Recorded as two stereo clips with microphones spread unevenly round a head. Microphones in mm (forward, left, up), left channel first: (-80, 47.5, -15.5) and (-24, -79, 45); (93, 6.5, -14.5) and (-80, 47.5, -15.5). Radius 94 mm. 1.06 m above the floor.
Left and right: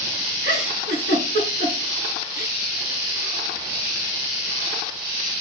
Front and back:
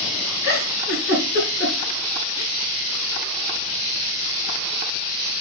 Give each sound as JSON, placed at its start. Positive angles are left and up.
{"t": 0.4, "sound": "a giggle", "azimuth_deg": -50, "distance_m": 5.0}